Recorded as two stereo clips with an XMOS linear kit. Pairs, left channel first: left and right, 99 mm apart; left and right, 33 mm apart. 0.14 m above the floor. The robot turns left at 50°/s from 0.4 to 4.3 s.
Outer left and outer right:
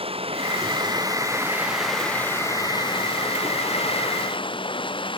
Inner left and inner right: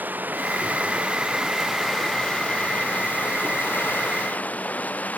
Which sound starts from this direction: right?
Running water, at 0.0 s.